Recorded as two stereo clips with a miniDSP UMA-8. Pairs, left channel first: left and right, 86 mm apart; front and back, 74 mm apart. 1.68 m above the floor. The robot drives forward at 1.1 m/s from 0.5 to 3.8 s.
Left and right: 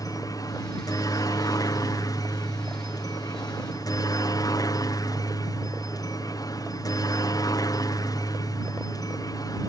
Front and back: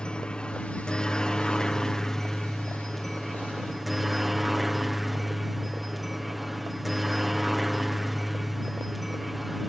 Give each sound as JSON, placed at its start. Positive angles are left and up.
{"t": 0.0, "sound": "a helicopter", "azimuth_deg": 75}